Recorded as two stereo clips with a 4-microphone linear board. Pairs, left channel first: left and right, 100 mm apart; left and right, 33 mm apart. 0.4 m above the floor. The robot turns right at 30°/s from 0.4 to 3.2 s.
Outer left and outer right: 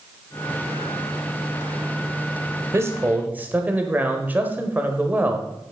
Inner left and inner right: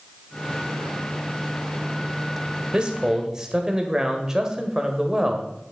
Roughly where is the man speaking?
Right.